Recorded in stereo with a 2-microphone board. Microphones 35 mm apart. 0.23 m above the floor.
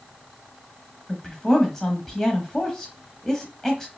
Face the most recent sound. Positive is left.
turn(degrees=10)  # may be behind; listen again after turning